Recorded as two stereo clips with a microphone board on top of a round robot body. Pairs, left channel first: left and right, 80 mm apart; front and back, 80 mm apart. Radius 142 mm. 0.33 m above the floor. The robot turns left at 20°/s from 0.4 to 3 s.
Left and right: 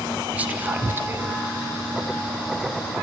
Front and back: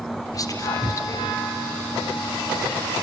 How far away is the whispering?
About 1.2 m.